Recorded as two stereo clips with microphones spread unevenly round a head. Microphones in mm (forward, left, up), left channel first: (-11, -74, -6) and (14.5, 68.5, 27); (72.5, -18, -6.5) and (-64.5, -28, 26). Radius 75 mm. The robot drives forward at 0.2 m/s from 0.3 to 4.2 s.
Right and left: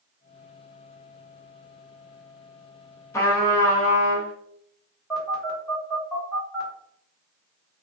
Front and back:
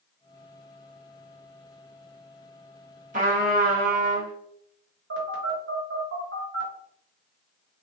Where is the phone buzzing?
170° left, 1.0 m.